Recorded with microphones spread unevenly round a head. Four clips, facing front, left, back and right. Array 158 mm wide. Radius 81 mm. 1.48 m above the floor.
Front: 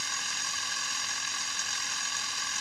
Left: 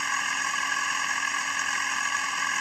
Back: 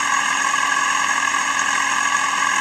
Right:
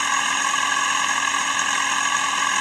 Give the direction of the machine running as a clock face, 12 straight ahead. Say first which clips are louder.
Right 7 dB, back 19 dB; 5 o'clock.